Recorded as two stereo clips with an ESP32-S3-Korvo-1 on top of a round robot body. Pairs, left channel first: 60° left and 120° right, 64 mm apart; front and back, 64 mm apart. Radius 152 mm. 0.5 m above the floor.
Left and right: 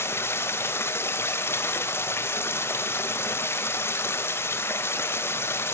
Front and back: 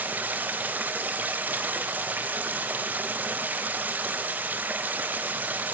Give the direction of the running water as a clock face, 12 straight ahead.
8 o'clock.